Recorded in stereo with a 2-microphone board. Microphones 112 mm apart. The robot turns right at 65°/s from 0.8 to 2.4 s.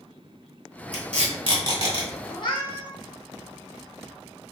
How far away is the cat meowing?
About 0.8 m.